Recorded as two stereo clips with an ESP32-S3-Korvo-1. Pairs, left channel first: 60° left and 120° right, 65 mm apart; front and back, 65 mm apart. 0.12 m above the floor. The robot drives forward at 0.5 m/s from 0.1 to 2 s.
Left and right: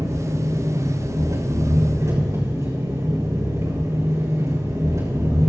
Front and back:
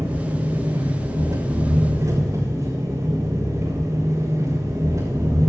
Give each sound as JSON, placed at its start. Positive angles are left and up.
{"t": 0.0, "sound": "an engine running", "azimuth_deg": -150, "distance_m": 6.0}